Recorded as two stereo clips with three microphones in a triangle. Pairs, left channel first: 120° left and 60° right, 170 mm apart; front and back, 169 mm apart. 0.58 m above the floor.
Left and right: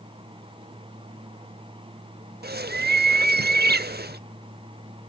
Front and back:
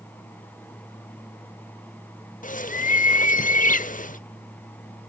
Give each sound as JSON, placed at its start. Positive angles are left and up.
{"t": 2.4, "sound": "a bird", "azimuth_deg": -40, "distance_m": 0.7}